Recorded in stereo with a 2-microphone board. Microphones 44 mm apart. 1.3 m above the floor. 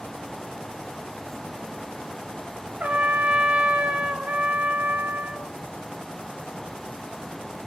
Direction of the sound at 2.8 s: 40° right (ahead or behind).